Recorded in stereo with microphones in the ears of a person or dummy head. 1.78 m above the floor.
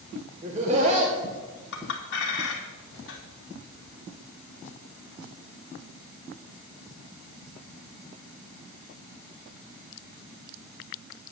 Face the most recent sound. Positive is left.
turn(degrees=70)  # may be behind; listen again after turning